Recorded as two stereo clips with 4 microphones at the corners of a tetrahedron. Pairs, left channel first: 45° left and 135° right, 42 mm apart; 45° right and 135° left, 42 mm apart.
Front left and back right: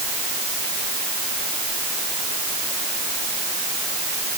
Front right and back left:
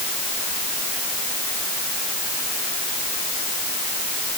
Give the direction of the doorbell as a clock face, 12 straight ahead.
I don't hear a doorbell.